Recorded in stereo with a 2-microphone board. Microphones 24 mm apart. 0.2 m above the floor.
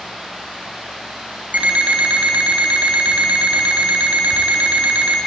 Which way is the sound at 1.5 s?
80° right.